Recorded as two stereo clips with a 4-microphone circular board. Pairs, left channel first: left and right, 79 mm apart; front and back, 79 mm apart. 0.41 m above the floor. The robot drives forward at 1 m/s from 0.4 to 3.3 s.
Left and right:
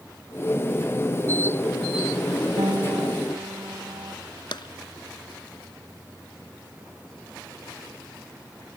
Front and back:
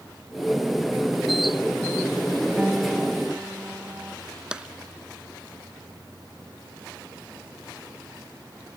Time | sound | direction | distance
2.6 | a piano | 100° right | ?
4.5 | tapping | 100° left | ?